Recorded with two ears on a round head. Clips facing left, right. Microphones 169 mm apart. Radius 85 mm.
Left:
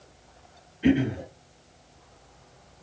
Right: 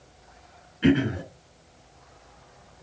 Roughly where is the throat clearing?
Right.